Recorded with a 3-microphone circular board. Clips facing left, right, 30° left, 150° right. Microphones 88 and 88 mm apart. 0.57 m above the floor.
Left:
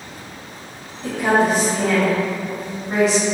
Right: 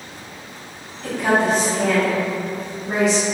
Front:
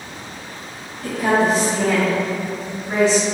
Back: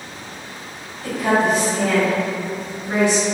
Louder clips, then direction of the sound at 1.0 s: Left 1 dB, front 1 dB; 30° left.